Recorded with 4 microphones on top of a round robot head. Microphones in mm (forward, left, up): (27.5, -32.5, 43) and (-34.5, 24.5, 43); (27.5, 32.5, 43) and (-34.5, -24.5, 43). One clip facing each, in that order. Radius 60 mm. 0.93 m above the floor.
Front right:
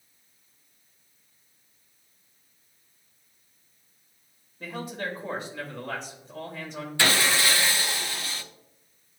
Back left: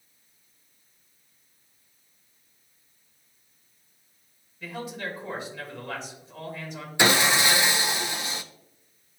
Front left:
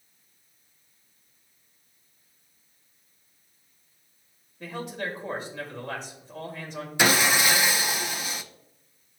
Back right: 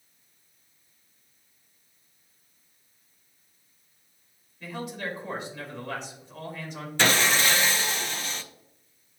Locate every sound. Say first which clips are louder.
4.6 s a man speaking: front right 1 dB, front left 1 dB; 5° right, 2.5 m
7.0 s sawing: back left 3 dB, front left 1 dB; 105° left, 0.6 m